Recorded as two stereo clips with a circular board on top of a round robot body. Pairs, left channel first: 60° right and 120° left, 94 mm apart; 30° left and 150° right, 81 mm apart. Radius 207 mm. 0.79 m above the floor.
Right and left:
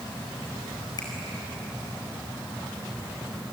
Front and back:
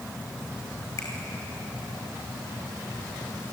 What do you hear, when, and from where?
1.0 s a finger snap: 15° right, 5 m